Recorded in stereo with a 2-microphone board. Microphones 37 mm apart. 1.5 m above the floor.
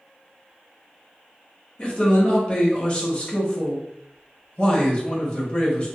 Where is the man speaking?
25° left (ahead or behind), 1.1 m.